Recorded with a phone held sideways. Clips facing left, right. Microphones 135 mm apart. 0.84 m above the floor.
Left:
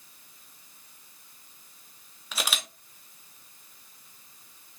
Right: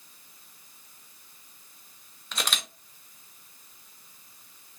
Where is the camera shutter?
5° left (ahead or behind), 1.0 m.